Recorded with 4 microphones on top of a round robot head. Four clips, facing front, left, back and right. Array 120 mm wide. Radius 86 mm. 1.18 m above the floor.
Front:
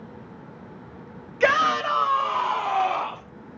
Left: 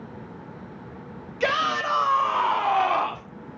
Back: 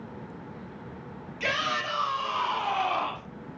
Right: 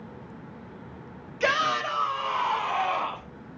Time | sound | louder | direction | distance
1.4 | a shout | left 1 dB, front 10 dB | 20° left | 1.3 m